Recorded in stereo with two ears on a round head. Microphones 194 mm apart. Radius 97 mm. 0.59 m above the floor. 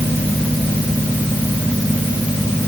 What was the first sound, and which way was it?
Only background noise.